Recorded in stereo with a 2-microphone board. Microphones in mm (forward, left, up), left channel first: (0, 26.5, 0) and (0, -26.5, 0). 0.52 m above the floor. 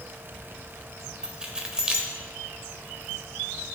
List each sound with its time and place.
1.2 s keys jangling: 15° right (ahead or behind), 1.4 m